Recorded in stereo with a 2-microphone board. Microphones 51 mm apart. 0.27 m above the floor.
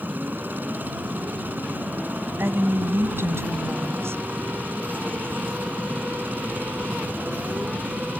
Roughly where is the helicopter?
Right.